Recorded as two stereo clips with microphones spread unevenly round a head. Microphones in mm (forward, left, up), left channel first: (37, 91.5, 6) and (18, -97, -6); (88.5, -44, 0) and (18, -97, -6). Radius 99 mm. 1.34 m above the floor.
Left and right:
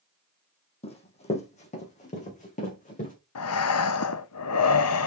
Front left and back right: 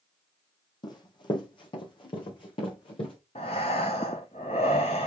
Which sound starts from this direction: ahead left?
Running footsteps, at 0.8 s.